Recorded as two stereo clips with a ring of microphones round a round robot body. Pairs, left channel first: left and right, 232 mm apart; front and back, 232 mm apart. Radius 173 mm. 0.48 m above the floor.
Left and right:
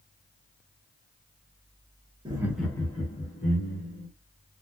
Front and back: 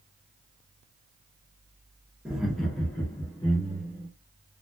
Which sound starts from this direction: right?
Laughter, at 2.2 s.